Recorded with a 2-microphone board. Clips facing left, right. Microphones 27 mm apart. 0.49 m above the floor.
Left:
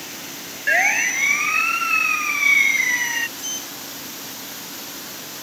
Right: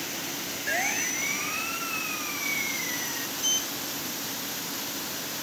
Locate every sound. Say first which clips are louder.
0.7 s a siren: left 11 dB; 40° left (ahead or behind); by 3.3 s 60° left (ahead or behind)
3.4 s a sliding door: right 2 dB; 20° right (ahead or behind)